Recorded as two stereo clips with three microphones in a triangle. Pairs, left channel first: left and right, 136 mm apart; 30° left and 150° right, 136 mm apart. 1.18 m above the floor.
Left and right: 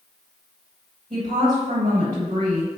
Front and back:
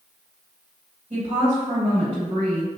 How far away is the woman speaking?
About 1.5 m.